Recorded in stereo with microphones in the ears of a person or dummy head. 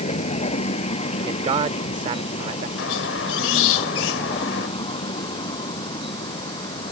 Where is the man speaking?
35° right (ahead or behind).